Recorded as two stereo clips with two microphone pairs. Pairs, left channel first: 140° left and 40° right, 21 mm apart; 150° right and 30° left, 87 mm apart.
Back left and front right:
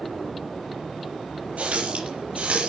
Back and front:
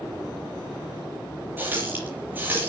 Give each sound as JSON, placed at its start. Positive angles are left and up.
{"t": 1.6, "sound": "a running tap", "azimuth_deg": -40, "distance_m": 7.5}